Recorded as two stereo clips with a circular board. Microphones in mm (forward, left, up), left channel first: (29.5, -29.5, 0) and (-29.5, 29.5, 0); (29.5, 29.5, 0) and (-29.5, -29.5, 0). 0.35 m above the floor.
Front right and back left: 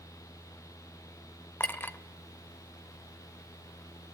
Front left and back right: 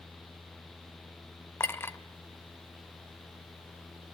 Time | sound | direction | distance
1.6 | a clink | 5° left | 0.8 m